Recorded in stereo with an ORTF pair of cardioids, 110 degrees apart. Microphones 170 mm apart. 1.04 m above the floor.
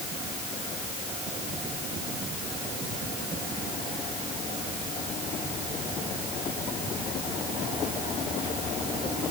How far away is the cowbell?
No cowbell in this recording.